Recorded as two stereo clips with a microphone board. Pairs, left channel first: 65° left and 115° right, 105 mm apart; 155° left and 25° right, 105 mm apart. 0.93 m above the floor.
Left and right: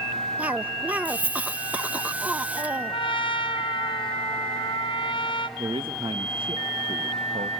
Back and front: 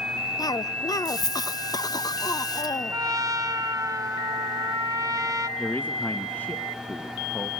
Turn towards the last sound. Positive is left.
turn(degrees=-130)